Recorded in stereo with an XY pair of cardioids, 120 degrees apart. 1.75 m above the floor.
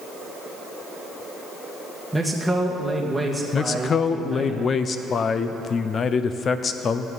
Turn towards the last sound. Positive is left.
turn(degrees=40)